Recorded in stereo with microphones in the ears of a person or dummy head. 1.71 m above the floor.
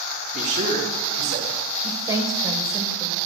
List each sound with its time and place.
0.3 s a man speaking: 45° right (ahead or behind), 4.5 m; by 1.6 s 50° right (ahead or behind), 5 m
1.8 s a woman speaking: 15° right (ahead or behind), 1.6 m